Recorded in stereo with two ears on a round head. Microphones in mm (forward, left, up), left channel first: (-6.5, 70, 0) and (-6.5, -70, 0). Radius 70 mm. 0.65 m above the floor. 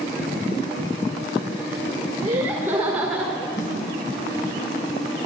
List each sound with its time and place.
2.2 s laughter: 25° right (ahead or behind), 1.4 m; by 3.5 s 5° right (ahead or behind), 1.9 m
3.6 s a snare drum: 55° left (ahead or behind), 5 m